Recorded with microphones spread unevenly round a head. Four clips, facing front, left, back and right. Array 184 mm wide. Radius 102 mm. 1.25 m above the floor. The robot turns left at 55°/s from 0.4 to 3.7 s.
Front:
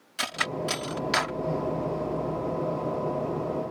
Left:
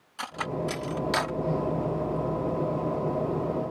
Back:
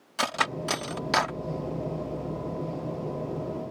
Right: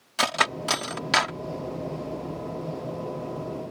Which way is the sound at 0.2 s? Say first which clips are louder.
Right 5 dB, back 2 dB; 135° right.